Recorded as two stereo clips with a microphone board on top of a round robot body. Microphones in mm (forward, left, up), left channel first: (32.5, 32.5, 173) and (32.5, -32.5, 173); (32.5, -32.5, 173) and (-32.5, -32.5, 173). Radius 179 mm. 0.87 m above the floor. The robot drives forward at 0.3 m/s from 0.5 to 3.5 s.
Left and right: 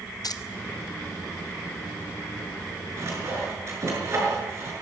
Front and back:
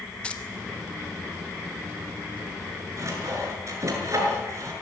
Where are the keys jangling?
75° left, 1.4 m.